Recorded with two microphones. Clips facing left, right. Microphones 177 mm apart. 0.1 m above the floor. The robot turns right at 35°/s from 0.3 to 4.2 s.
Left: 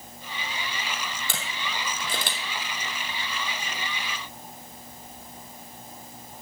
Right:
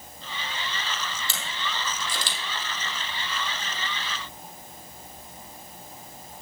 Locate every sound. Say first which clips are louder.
1.3 s a camera shutter: even; 60° left (ahead or behind), 2.5 m; by 2.4 s 65° left (ahead or behind), 2.5 m